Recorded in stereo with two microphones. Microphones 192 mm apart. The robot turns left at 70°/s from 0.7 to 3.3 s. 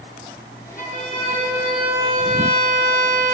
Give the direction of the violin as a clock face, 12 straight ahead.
10 o'clock.